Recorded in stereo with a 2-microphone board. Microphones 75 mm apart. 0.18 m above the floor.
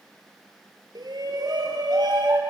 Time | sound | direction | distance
0.9 | a shout | 65° right (ahead or behind) | 4.5 m